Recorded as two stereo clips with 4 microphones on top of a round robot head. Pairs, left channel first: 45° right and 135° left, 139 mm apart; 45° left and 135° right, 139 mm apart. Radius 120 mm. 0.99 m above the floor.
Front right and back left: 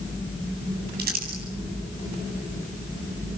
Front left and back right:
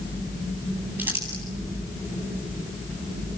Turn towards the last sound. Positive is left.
turn(degrees=150)